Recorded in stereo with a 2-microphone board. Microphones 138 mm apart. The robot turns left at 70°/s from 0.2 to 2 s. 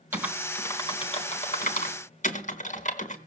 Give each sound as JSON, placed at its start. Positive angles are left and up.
{"t": 0.1, "sound": "typing on a keyboard", "side_deg": -15, "distance_m": 3.5}